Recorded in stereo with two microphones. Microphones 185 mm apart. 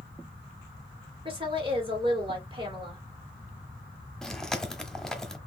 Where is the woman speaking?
30° right (ahead or behind), 3 m.